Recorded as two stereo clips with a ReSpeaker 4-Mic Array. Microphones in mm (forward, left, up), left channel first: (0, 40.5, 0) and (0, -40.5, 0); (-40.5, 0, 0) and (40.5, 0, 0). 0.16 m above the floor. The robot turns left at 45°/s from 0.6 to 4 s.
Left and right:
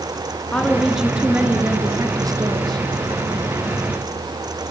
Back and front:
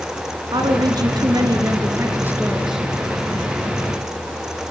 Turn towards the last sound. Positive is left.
turn(degrees=-140)